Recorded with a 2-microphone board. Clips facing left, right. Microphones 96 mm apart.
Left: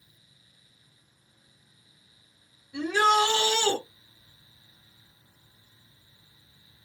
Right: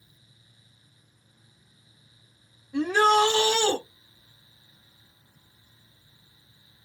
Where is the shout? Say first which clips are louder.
Right 2 dB; 40° right (ahead or behind), 1.6 m.